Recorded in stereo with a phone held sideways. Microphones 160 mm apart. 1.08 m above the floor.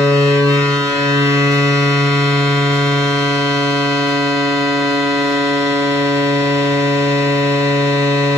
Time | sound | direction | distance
0.0 | a machine running | 20° right (ahead or behind) | 0.8 m